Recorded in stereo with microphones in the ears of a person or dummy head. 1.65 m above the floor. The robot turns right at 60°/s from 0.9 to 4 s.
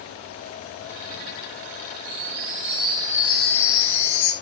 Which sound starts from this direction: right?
A chime, at 2.0 s.